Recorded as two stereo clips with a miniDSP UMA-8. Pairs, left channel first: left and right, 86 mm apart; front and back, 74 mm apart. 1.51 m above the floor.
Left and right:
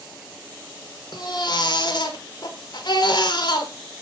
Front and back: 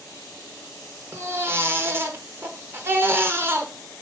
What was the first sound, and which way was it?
A baby crying, 125° left.